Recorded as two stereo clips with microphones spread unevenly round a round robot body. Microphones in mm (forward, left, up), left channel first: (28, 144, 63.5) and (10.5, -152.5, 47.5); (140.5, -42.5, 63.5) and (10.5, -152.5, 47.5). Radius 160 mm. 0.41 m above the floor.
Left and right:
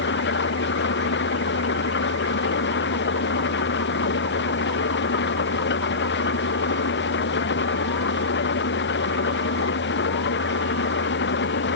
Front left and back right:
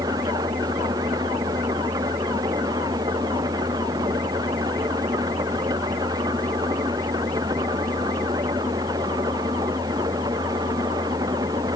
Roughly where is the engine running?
Behind left.